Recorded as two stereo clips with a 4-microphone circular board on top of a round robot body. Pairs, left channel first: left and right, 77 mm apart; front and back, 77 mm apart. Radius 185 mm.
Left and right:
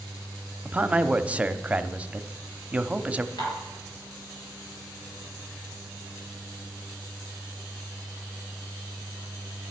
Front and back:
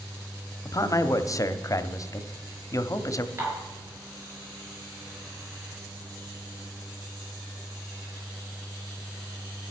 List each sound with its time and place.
0.7 s a man speaking: 20° right, 1.0 m
3.4 s dishes clattering: 120° left, 6 m